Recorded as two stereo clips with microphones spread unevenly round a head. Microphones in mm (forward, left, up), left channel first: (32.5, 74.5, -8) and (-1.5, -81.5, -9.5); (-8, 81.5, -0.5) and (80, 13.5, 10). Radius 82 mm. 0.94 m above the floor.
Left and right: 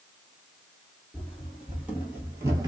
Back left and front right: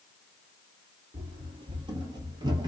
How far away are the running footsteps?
About 1.5 m.